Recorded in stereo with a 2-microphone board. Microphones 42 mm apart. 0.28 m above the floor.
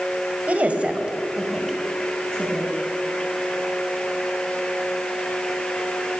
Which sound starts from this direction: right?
A woman speaking, at 0.5 s.